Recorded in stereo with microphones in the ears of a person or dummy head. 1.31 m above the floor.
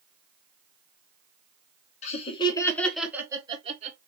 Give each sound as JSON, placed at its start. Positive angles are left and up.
{"t": 2.0, "sound": "laughter", "side_deg": 40, "distance_m": 1.6}